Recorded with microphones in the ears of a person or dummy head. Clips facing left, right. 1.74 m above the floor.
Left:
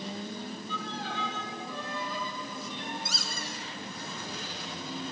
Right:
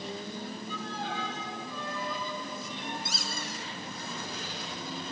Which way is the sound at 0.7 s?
45° right (ahead or behind).